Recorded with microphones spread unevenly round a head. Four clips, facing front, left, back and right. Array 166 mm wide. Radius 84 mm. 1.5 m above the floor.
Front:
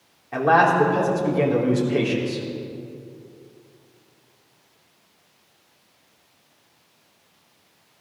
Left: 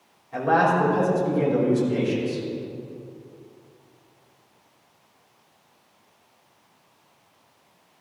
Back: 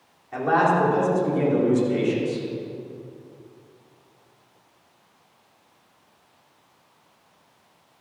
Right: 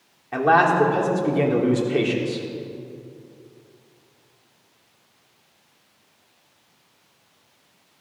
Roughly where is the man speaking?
Ahead right.